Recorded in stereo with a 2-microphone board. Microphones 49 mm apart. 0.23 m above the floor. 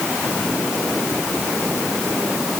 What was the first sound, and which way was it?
Only background noise.